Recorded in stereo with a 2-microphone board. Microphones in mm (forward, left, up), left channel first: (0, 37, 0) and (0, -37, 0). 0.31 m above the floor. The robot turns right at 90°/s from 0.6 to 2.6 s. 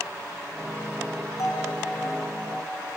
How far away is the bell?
About 3 m.